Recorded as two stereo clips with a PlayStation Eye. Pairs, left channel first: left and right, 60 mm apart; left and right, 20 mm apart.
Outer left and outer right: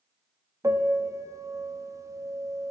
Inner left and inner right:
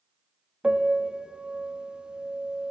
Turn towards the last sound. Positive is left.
turn(degrees=-60)  # may be behind; listen again after turning